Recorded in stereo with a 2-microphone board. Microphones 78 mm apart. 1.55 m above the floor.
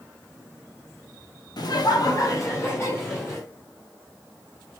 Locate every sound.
1.6 s laughter: 60° left (ahead or behind), 0.6 m; by 3.5 s 25° left (ahead or behind), 1.0 m